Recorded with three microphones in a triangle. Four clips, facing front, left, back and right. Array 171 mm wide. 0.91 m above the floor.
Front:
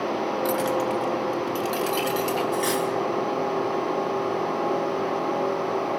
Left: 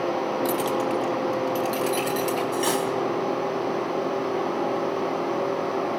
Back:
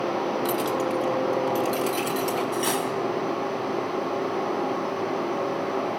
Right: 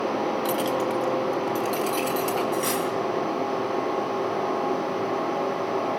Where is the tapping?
I don't hear tapping.